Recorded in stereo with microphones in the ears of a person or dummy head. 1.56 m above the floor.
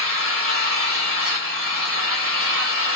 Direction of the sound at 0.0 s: 55° right (ahead or behind).